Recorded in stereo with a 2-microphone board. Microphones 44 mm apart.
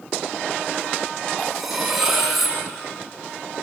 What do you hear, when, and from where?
1.4 s cutlery clinking: centre (ahead or behind), 4.5 m